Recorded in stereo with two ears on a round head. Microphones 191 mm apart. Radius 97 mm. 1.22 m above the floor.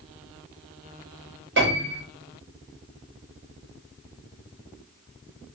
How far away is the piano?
About 1.4 m.